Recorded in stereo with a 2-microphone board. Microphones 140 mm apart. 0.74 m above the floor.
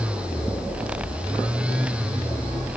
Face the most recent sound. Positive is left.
No sound to turn to.